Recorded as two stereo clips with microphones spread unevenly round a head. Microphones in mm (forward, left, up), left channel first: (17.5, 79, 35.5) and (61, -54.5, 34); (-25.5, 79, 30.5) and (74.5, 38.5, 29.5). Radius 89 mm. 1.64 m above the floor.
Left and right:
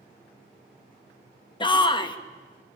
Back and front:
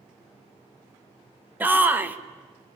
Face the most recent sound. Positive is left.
turn(degrees=50)